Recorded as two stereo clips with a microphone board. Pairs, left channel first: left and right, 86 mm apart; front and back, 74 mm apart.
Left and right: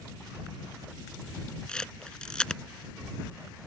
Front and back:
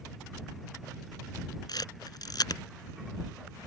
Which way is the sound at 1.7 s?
10° left.